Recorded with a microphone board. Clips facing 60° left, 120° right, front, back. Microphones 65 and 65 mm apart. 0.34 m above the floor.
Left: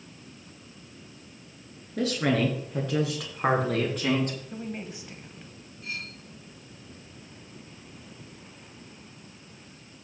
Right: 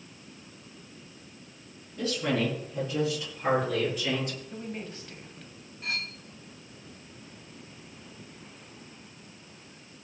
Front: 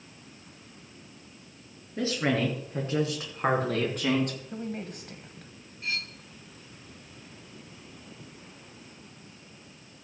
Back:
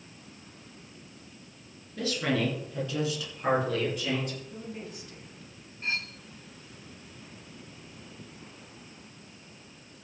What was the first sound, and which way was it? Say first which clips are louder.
A woman speaking: left 3 dB, front 2 dB; 60° left.